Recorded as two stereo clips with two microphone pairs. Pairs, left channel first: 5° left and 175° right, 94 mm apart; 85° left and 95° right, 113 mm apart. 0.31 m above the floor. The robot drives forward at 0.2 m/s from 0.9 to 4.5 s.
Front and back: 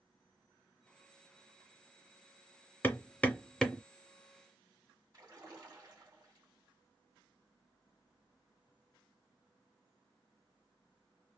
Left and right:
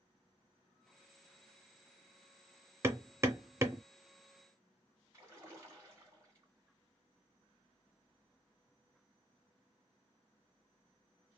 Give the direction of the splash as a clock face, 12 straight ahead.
5 o'clock.